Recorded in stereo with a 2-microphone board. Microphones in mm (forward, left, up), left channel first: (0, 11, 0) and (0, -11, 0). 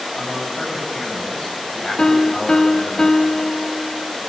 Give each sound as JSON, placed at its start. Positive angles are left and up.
{"t": 0.1, "sound": "a man speaking", "side_deg": 65, "distance_m": 7.5}
{"t": 2.0, "sound": "a piano", "side_deg": 35, "distance_m": 1.1}